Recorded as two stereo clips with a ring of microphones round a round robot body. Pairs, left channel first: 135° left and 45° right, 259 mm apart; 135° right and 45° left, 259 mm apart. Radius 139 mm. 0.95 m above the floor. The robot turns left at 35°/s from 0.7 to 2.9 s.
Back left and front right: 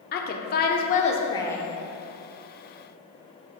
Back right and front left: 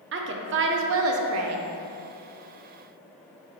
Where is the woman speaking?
85° left, 0.5 m; by 1.6 s 50° left, 0.5 m.